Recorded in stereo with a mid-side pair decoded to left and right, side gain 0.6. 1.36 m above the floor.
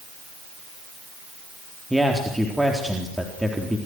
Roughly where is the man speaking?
Ahead.